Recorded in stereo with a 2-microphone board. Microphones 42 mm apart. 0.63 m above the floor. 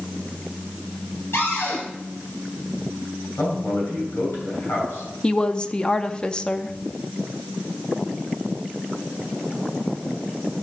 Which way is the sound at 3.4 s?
65° left (ahead or behind).